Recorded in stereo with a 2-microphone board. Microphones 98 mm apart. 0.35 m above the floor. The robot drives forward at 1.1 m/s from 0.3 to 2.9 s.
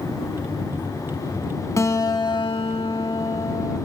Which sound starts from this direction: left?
A guitar, at 1.8 s.